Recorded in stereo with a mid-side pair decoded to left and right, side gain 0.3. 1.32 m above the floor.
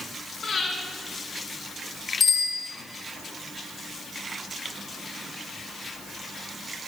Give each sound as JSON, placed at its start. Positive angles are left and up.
{"t": 0.4, "sound": "breathing", "azimuth_deg": 65, "distance_m": 6.0}
{"t": 2.2, "sound": "a bicycle bell", "azimuth_deg": 70, "distance_m": 5.0}